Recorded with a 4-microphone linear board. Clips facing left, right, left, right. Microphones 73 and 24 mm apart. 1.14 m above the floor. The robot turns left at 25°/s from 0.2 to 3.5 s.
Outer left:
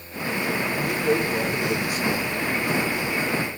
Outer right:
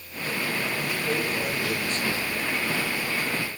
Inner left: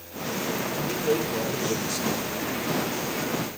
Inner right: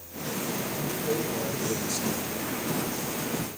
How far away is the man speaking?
About 1.2 m.